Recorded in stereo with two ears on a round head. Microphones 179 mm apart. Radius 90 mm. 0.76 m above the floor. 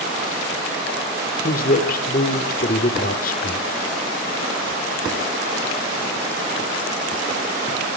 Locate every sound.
1.4 s a man speaking: 45° left (ahead or behind), 2.5 m